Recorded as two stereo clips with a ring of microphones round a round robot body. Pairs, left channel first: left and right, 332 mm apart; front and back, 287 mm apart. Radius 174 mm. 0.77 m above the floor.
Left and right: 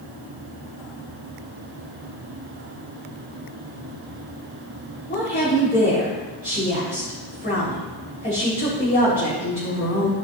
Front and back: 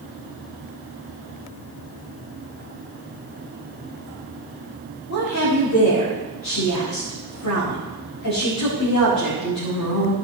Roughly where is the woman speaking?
Ahead.